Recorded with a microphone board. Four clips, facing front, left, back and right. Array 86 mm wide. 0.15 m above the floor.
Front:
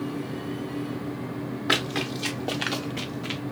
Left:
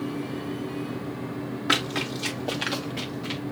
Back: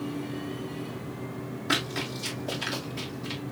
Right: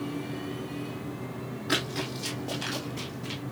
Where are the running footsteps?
40° left, 2.5 m; by 3.4 s 15° left, 1.7 m.